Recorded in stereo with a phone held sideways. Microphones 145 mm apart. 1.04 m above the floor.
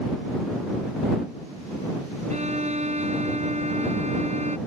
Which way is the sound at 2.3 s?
50° right (ahead or behind).